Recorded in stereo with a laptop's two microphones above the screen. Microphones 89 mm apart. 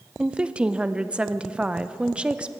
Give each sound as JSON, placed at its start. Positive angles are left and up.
{"t": 0.2, "sound": "a woman speaking", "side_deg": -10, "distance_m": 0.6}